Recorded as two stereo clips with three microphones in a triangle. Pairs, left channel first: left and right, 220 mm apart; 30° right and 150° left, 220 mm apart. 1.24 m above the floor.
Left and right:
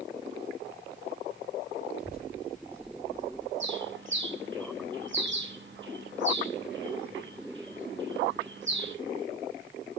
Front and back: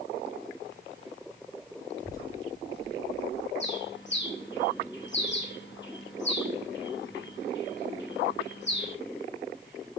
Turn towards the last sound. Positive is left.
turn(degrees=-60)